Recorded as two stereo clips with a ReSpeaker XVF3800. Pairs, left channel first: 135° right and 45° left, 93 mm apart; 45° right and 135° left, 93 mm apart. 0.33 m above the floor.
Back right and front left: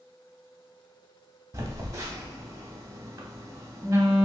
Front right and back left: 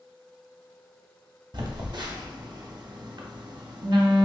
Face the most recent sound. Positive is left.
turn(degrees=100)